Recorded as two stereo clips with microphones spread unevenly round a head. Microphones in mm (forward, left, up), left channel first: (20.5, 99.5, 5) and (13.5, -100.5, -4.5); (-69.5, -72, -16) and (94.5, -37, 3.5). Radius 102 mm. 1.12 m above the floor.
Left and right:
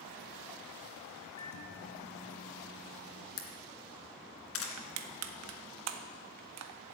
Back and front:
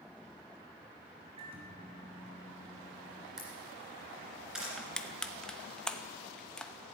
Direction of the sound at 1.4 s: 80° left.